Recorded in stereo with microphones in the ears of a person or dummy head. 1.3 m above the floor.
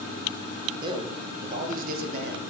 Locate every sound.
0.8 s a man speaking: 20° right (ahead or behind), 1.1 m; by 2.4 s 50° right (ahead or behind), 1.7 m